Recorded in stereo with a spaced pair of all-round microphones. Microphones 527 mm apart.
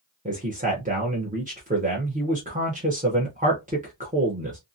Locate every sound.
0.2 s a man speaking: 15° right (ahead or behind), 0.7 m